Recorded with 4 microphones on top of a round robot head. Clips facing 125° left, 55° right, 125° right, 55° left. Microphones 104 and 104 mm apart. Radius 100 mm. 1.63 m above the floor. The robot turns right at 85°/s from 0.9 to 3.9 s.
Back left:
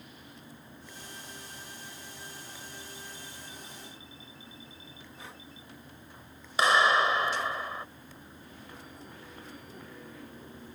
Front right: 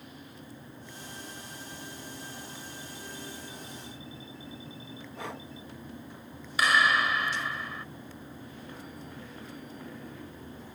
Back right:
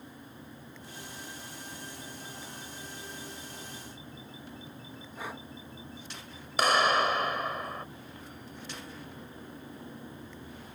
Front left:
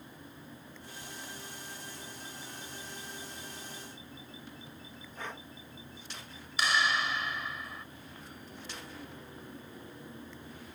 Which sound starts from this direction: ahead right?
Breathing, at 5.2 s.